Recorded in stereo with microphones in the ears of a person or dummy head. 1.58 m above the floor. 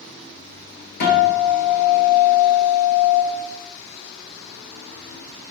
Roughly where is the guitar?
Left.